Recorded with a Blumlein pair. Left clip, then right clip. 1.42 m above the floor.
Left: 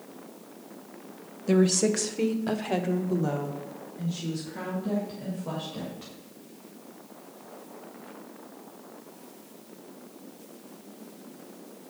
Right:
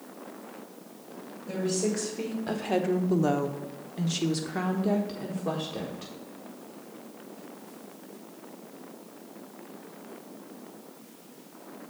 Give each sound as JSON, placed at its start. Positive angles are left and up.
{"t": 1.5, "sound": "a woman speaking", "azimuth_deg": 30, "distance_m": 1.3}